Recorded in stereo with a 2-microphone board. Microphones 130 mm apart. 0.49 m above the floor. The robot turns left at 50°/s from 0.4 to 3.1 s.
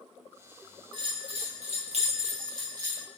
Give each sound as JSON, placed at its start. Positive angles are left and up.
{"t": 0.9, "sound": "a bell", "azimuth_deg": -50, "distance_m": 1.1}